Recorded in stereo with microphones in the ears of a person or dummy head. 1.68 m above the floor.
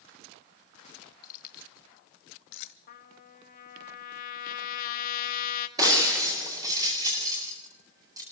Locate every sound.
1.2 s keys jangling: 55° left (ahead or behind), 1.6 m; by 2.8 s 60° left (ahead or behind), 1.4 m
2.9 s a trumpet: 55° left (ahead or behind), 1.7 m
5.8 s breaking glass: 15° right (ahead or behind), 7.5 m